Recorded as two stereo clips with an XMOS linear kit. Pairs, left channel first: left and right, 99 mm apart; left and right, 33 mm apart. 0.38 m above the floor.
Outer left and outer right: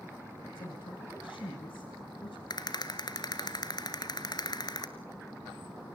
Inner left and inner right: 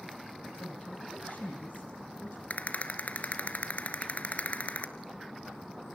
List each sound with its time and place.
0.6 s a woman speaking: 60° left (ahead or behind), 2.5 m; by 2.4 s 70° left (ahead or behind), 2.5 m
2.5 s a rattle: 50° left (ahead or behind), 1.7 m